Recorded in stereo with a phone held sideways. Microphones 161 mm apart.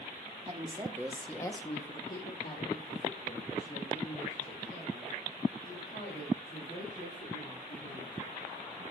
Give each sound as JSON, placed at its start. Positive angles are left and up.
{"t": 0.5, "sound": "a woman speaking", "side_deg": -40, "distance_m": 1.3}